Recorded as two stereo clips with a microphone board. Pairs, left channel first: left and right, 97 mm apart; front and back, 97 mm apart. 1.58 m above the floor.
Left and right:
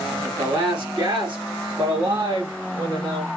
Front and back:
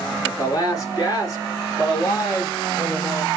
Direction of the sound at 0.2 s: 50° right.